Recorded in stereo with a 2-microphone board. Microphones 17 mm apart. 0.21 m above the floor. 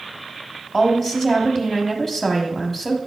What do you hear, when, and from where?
0.7 s a woman speaking: 20° left (ahead or behind), 1.3 m